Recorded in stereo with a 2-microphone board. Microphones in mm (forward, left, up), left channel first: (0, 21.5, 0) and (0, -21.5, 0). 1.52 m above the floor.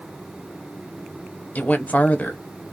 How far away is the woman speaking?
About 0.8 m.